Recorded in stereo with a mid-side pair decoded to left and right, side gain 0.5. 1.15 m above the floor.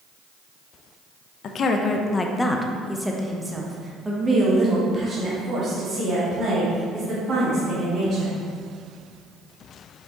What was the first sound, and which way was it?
A woman speaking, 55° left.